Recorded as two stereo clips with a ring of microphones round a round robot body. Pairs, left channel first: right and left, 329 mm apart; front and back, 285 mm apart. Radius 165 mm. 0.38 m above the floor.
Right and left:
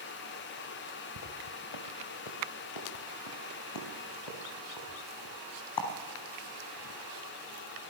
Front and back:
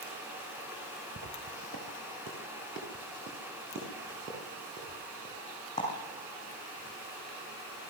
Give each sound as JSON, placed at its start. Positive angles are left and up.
{"t": 1.2, "sound": "footsteps", "azimuth_deg": -110, "distance_m": 2.0}